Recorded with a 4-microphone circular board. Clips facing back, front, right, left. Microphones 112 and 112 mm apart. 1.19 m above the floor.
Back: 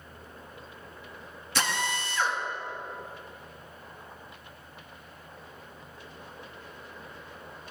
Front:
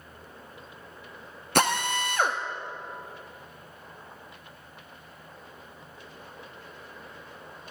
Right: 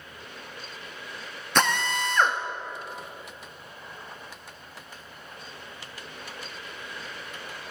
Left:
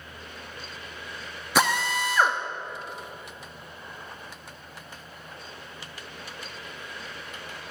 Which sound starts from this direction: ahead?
A drill, at 1.6 s.